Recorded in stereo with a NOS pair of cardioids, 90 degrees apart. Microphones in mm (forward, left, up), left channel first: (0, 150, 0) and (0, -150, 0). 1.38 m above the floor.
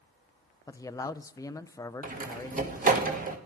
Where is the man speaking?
10° left, 0.5 m.